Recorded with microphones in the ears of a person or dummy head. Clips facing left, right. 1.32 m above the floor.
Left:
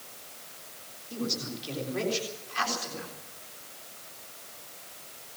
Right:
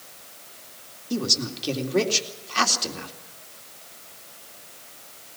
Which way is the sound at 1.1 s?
65° right (ahead or behind).